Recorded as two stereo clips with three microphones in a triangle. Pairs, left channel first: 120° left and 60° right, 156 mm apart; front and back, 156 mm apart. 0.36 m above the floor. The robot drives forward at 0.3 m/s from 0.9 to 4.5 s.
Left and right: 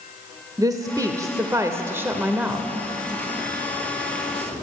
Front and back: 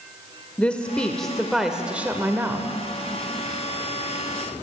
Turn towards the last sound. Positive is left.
turn(degrees=-155)